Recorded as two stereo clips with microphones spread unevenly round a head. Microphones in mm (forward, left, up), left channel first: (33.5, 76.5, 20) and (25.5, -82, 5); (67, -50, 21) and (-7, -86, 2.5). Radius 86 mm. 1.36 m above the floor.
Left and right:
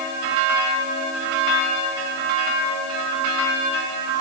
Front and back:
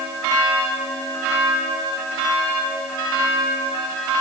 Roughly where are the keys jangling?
No keys jangling in this recording.